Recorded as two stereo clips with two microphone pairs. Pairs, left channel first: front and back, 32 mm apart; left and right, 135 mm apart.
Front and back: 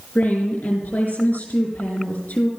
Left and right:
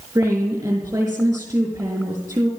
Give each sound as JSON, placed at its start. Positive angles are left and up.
{"t": 0.1, "sound": "a woman speaking", "azimuth_deg": -20, "distance_m": 5.5}